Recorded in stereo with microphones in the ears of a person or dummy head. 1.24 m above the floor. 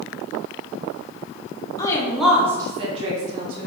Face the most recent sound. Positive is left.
turn(degrees=-55)  # may be behind; listen again after turning